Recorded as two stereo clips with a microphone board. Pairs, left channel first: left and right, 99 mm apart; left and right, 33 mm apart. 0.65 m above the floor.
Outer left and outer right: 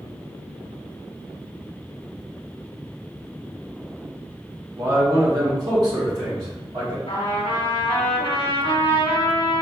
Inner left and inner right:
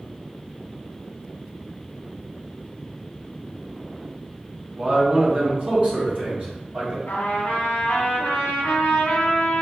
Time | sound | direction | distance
4.8 | a man speaking | 30° right (ahead or behind) | 0.8 m
7.1 | a trumpet | 65° left (ahead or behind) | 0.9 m